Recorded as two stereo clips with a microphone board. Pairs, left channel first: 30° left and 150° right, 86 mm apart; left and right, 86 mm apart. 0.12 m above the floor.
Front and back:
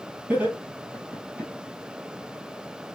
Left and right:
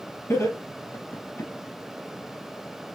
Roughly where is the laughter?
Behind left.